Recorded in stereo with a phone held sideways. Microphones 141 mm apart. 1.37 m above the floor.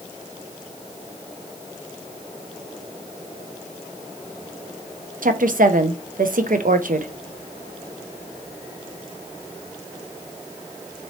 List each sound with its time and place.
5.2 s a woman speaking: 75° right (ahead or behind), 0.5 m